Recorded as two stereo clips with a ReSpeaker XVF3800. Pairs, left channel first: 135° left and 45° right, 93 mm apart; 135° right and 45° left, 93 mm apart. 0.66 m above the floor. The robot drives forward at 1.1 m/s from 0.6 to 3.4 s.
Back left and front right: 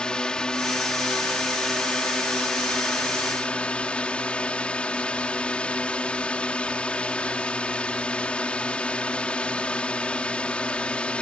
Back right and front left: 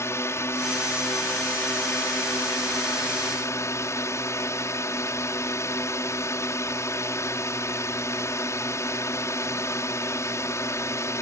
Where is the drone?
150° right; by 11.2 s 155° right.